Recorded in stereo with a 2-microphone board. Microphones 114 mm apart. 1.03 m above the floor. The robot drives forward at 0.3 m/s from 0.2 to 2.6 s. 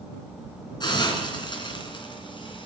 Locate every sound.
0.8 s a hiss: 40° left (ahead or behind), 3.5 m; by 2.7 s 45° left (ahead or behind), 3 m